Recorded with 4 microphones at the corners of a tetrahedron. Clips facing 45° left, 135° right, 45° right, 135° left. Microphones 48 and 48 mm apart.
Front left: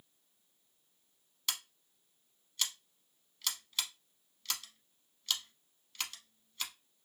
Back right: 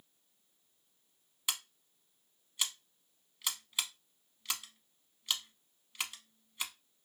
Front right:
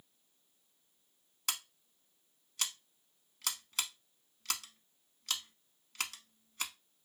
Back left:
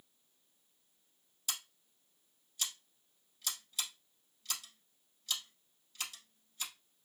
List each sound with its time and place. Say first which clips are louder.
1.5 s scissors: back right 1 dB, front right 3 dB; 65° right, 0.7 m